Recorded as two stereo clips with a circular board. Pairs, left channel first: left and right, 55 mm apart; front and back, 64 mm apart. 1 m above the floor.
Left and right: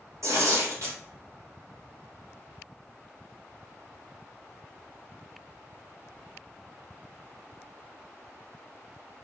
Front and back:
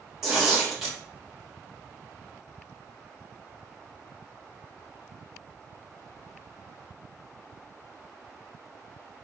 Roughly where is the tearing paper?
Right.